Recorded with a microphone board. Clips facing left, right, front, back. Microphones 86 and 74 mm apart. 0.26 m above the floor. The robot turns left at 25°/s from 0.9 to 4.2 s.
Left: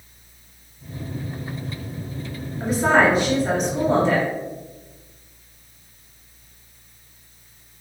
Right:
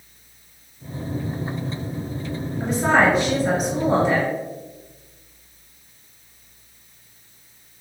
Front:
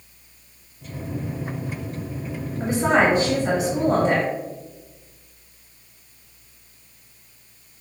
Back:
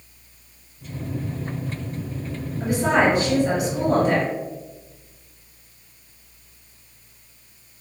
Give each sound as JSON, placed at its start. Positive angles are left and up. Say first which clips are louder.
{"t": 2.6, "sound": "a woman speaking", "louder": "left 1 dB, even", "azimuth_deg": 15, "distance_m": 1.5}